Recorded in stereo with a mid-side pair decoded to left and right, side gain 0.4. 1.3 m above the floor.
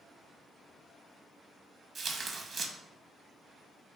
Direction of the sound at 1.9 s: 55° right.